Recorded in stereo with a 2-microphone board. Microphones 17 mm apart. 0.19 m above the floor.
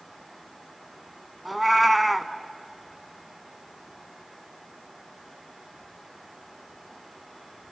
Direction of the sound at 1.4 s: 5° right (ahead or behind).